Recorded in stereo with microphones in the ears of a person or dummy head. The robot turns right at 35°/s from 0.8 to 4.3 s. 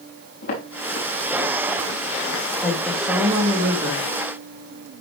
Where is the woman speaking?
165° left, 2.5 m; by 4.0 s 145° right, 2.5 m.